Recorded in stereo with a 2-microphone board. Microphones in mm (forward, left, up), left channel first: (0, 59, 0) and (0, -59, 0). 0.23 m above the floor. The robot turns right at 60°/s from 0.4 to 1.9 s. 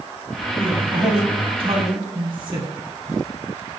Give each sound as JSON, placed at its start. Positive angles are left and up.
{"t": 0.6, "sound": "a man speaking", "azimuth_deg": -150, "distance_m": 1.6}